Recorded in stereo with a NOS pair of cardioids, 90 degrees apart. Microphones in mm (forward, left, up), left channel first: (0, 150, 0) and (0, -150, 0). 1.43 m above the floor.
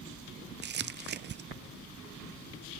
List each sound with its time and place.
0.6 s crumpling: 35° right, 0.6 m